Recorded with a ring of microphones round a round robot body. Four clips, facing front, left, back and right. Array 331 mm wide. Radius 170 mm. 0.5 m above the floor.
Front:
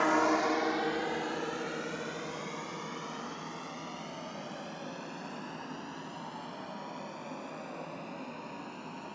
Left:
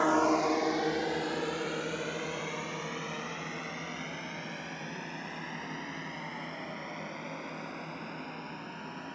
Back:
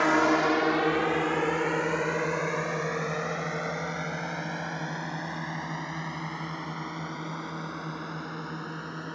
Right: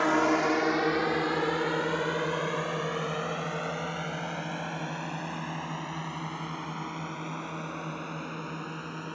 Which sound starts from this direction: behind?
A drone, at 0.0 s.